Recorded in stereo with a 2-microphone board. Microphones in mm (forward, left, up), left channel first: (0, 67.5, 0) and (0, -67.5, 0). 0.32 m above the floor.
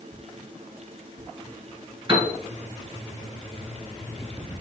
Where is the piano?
40° right (ahead or behind), 1.3 m.